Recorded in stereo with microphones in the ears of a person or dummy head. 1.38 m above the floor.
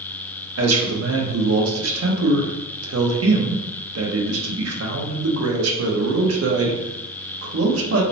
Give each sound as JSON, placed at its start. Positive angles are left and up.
{"t": 0.6, "sound": "a man speaking", "side_deg": -80, "distance_m": 0.8}